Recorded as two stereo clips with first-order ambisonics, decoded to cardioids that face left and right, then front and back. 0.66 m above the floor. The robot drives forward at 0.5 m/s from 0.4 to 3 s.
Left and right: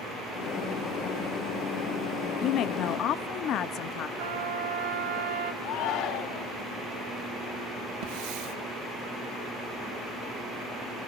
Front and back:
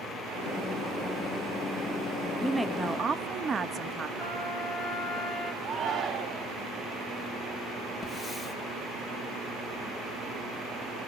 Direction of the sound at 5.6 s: 130° left.